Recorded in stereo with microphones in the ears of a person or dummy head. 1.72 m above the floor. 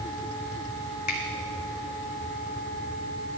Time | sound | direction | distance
1.1 | a finger snap | 50° left (ahead or behind) | 1.3 m